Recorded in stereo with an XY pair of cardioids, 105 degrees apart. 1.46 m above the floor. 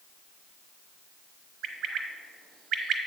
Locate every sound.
1.6 s a bird: 70° right, 1.1 m